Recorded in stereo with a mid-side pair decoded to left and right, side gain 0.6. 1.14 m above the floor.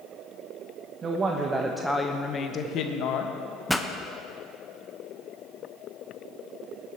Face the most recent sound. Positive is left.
turn(degrees=5)